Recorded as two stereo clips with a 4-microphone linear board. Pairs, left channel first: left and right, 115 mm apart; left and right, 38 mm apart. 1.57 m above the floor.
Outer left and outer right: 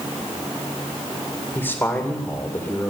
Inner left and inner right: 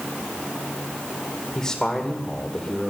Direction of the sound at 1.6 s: 25° left (ahead or behind).